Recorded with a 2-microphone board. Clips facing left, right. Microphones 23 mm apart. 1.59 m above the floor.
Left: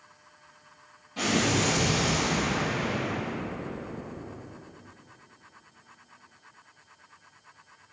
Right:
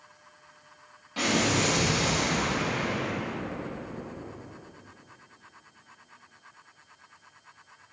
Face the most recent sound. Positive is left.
turn(degrees=-50)  # may be behind; listen again after turning